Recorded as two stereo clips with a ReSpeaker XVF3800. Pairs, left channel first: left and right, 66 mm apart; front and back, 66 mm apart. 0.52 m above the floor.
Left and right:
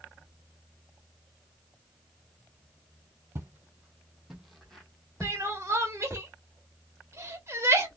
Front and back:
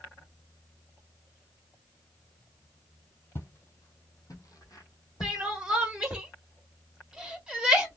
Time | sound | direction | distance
3.4 | footsteps | 45° right | 0.9 m
5.2 | crying | 105° right | 0.8 m